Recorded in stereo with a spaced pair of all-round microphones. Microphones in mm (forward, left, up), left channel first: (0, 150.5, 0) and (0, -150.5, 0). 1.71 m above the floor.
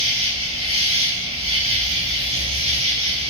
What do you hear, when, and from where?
0.0 s an insect: 45° right (ahead or behind), 4.5 m